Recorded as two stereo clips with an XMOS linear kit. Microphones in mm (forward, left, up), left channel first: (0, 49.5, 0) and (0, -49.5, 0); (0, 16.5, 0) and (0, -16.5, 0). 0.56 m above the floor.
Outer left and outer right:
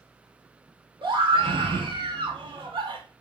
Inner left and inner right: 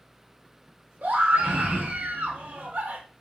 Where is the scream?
55° right (ahead or behind), 1.8 m.